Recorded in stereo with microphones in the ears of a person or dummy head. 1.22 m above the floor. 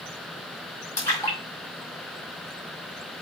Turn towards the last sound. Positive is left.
turn(degrees=15)  # may be behind; listen again after turning